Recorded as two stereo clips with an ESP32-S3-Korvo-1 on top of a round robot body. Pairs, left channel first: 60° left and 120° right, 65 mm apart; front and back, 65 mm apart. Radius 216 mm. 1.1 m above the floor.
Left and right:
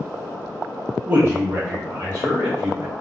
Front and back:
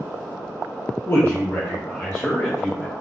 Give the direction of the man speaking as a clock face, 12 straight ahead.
2 o'clock.